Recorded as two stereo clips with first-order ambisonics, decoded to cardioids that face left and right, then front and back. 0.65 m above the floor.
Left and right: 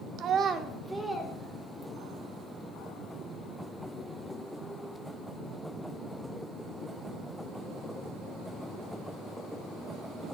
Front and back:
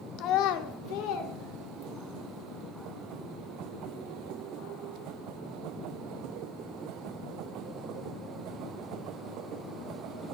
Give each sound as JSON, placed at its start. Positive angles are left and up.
{"t": 0.2, "sound": "a child speaking", "azimuth_deg": -45, "distance_m": 0.5}